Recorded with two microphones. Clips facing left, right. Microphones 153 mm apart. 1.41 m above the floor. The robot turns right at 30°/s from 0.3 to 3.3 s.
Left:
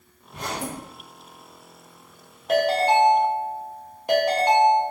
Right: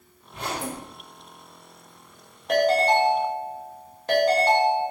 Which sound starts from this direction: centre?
A ringtone, at 2.5 s.